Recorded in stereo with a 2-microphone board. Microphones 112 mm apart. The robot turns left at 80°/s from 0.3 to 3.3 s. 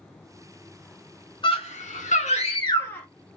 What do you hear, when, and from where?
1.4 s a scream: 135° left, 1.5 m; by 3.1 s 5° left, 1.5 m